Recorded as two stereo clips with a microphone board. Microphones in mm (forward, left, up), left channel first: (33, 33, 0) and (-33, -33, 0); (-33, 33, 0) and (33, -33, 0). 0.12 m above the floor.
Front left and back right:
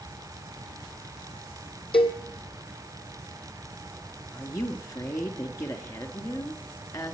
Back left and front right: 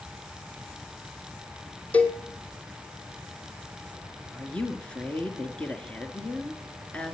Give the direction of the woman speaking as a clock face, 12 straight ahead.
10 o'clock.